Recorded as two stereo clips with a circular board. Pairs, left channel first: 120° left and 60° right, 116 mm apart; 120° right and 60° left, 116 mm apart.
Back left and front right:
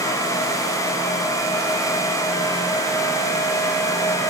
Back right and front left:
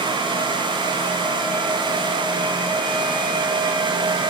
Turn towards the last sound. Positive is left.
No sound to turn to.